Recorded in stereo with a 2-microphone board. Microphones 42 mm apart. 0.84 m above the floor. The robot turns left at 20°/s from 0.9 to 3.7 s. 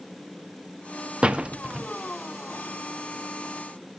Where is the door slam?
30° right (ahead or behind), 0.6 m; by 1.9 s 15° right (ahead or behind), 0.6 m.